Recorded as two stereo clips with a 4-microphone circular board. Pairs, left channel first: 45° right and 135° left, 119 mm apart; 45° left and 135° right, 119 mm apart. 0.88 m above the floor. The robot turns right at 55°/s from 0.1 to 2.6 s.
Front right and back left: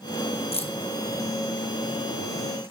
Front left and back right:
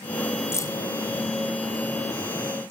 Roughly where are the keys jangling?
Ahead.